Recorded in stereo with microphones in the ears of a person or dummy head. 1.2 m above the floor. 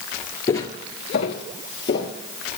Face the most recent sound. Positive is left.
turn(degrees=25)  # may be behind; listen again after turning